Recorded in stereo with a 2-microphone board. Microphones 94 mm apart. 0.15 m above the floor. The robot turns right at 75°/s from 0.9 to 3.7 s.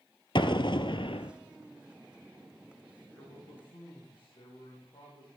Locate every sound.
0.3 s an explosion: 65° left, 0.8 m; by 1.3 s 100° left, 0.8 m
3.1 s a man speaking: 15° left, 7 m; by 5.3 s 60° left, 7 m